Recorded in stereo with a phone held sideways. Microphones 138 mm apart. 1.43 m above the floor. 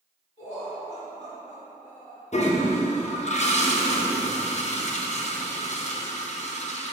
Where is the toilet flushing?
55° left (ahead or behind), 0.7 m.